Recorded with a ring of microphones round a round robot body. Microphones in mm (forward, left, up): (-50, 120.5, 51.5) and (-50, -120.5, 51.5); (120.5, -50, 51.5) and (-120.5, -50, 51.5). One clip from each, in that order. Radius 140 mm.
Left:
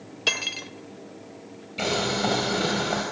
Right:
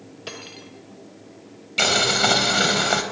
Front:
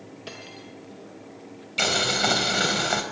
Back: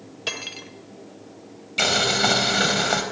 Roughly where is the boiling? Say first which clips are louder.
Right 7 dB, back 3 dB; right.